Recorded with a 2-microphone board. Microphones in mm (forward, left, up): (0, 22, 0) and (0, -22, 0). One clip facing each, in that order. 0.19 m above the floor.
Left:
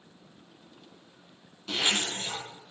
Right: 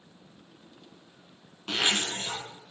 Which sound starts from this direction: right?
A zipper, at 1.7 s.